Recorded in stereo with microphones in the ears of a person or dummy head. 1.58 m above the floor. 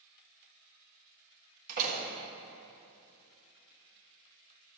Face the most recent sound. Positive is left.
turn(degrees=-55)  # may be behind; listen again after turning